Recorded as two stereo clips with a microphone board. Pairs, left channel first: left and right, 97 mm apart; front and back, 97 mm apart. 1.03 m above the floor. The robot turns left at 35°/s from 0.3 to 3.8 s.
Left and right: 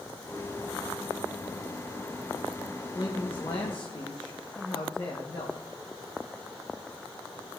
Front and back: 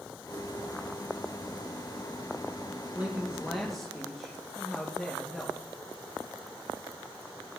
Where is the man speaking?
110° left, 1.0 m; by 5.6 s 80° left, 1.0 m.